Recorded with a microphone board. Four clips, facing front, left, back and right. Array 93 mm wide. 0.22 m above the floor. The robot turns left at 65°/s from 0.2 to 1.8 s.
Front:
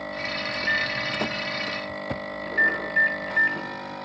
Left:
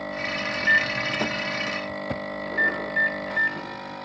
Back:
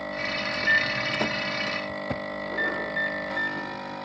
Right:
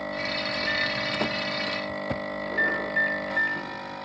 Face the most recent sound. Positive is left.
turn(degrees=20)